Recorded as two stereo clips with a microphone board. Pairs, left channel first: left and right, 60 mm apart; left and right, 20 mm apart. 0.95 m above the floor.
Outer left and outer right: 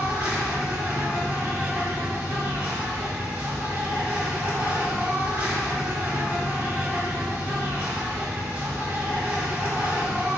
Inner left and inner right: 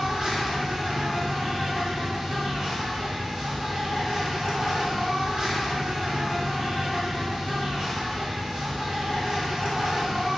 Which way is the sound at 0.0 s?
30° right (ahead or behind).